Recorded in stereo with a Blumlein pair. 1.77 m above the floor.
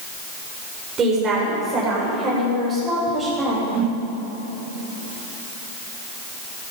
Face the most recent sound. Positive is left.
turn(degrees=-35)